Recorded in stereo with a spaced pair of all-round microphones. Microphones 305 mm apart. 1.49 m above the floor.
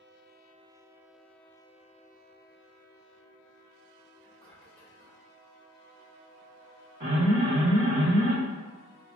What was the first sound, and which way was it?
Whispering, 5° left (ahead or behind).